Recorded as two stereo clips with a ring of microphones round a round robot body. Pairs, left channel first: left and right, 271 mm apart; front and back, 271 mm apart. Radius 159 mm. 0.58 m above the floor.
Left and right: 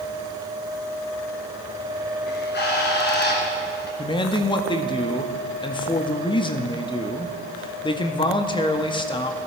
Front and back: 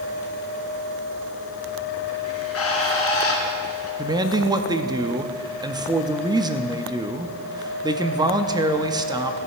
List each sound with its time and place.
2.3 s a bird: 40° left, 3 m
4.0 s a man speaking: 130° left, 0.8 m